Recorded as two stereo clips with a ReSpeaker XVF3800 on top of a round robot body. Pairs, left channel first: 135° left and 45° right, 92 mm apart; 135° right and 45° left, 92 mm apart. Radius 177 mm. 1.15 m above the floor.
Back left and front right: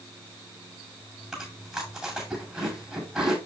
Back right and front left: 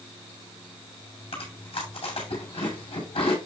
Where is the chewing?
125° right, 7.5 m.